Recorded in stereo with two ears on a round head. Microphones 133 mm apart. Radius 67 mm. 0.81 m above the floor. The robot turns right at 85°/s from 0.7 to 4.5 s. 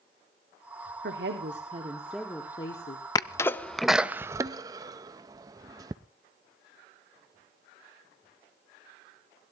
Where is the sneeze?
25° left (ahead or behind), 0.5 m; by 6.0 s 25° right (ahead or behind), 0.5 m.